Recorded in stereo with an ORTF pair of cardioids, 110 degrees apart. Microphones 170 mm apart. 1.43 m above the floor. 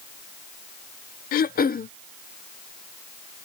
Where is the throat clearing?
60° left.